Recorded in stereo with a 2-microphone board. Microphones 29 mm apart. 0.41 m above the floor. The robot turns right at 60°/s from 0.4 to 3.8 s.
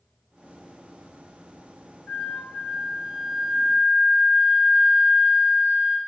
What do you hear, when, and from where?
2.1 s a flute: 135° left, 2 m; by 6.0 s 120° right, 2 m